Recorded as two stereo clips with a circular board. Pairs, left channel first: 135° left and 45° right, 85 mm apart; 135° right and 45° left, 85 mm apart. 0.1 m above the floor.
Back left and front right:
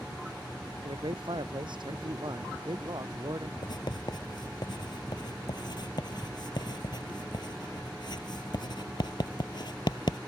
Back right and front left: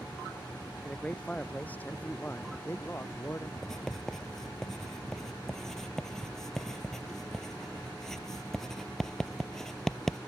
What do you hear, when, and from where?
0.8 s a man speaking: 55° right; by 3.5 s 80° right
3.6 s writing: 140° left